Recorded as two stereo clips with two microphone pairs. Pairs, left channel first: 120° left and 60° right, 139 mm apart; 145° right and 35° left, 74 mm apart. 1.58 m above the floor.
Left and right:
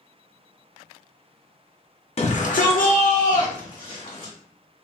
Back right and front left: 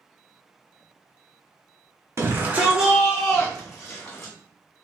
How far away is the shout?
About 0.5 m.